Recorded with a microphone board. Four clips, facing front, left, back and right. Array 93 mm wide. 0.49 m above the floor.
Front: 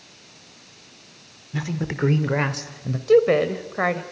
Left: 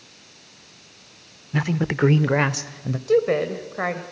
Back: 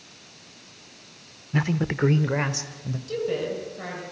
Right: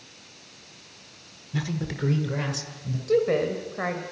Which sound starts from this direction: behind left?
A man speaking, at 1.5 s.